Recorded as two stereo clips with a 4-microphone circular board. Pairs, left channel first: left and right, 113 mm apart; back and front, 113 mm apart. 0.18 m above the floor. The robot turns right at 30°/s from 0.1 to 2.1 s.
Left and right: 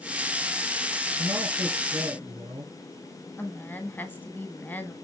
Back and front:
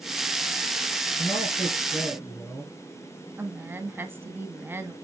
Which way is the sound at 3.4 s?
45° left.